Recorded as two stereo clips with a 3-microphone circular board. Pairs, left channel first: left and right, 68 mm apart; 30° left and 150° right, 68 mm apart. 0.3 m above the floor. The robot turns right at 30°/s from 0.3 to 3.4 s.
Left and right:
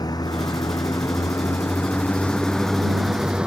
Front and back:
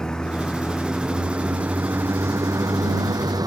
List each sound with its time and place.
0.0 s a vehicle: 110° left; by 3.5 s 165° right